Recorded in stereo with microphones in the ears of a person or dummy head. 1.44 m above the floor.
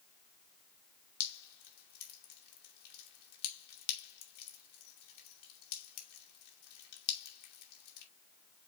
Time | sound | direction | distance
1.2 | dripping | 55° left (ahead or behind) | 2.5 m